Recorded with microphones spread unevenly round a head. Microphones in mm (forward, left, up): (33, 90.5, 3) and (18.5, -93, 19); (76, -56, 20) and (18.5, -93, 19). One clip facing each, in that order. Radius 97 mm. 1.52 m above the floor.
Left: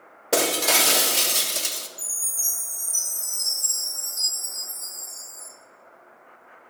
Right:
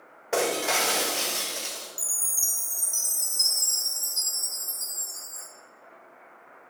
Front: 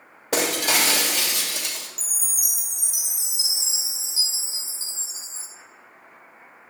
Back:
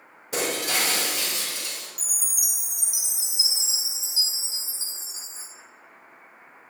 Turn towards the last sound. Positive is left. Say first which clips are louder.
# even, front 1 dB
turn(degrees=-80)